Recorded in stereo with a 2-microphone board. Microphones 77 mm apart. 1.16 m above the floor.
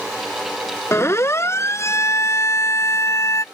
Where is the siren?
35° left (ahead or behind); by 3.5 s 40° left (ahead or behind).